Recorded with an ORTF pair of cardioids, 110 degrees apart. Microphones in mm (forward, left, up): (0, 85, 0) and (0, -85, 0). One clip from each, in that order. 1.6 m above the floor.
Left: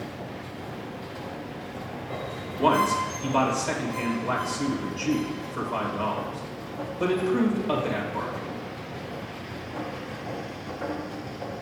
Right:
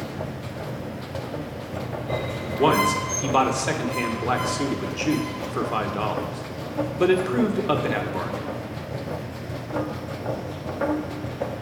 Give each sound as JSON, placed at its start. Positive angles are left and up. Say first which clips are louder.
{"t": 0.0, "sound": "a machine running", "louder": "right 4 dB", "azimuth_deg": -65, "distance_m": 0.8}
{"t": 2.6, "sound": "a man speaking", "louder": "right 2 dB", "azimuth_deg": -55, "distance_m": 1.3}